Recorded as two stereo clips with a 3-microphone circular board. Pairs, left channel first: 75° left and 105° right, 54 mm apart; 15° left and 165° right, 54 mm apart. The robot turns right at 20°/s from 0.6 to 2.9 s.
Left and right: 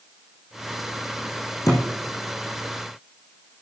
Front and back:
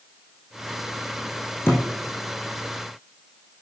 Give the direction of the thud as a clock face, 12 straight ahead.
10 o'clock.